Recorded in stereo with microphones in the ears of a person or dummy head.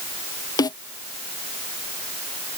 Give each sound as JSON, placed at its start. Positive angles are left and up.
{"t": 0.6, "sound": "a snare drum", "side_deg": 25}